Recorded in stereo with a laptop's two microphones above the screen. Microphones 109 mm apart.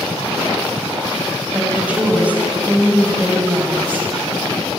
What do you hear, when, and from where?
1.5 s a woman speaking: 10° right (ahead or behind), 8.5 m; by 4.1 s 15° right (ahead or behind), 7 m